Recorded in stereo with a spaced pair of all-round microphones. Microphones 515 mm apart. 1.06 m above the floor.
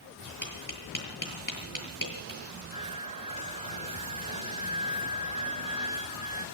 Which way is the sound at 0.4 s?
35° left (ahead or behind).